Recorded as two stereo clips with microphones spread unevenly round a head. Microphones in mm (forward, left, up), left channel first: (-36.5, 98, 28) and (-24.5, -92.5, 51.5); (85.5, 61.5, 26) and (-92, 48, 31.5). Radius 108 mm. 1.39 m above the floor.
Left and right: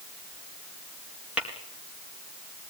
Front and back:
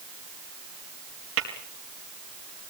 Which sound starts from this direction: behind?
Tapping, at 1.4 s.